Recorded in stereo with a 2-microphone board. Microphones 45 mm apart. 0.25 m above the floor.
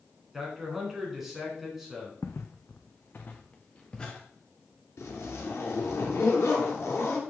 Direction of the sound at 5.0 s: 75° left (ahead or behind).